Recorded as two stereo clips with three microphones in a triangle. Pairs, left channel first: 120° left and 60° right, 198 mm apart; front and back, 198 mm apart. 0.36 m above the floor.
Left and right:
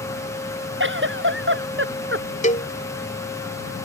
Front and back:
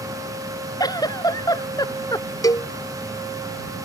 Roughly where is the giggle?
Right.